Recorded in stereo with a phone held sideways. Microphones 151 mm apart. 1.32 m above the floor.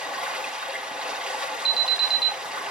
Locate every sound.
0.0 s running water: 5° right (ahead or behind), 1.6 m
1.6 s an alarm: 35° left (ahead or behind), 1.5 m